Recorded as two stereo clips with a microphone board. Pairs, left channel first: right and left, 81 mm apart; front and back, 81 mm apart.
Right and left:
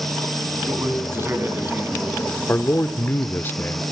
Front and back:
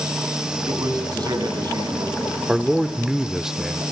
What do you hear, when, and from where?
0.7 s a man speaking: 150° left, 3.5 m
2.5 s a man speaking: 100° right, 0.9 m